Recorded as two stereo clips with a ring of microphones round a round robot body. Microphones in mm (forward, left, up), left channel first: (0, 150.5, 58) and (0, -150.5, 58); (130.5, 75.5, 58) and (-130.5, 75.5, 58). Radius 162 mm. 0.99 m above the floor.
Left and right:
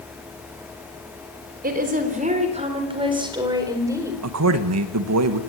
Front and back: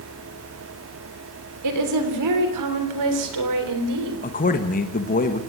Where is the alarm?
I don't hear an alarm.